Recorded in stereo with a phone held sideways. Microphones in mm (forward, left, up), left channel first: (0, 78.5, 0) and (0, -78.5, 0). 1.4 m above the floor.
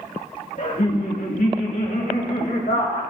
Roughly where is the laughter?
Left.